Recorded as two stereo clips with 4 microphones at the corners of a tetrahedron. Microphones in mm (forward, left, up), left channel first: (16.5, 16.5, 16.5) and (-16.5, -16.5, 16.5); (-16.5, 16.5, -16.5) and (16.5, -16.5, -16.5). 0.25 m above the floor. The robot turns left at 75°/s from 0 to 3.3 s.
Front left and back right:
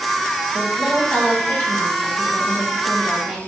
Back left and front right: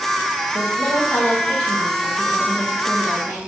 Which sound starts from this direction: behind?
A woman speaking, at 0.5 s.